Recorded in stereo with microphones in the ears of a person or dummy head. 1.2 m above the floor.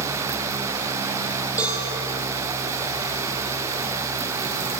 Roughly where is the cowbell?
Centre.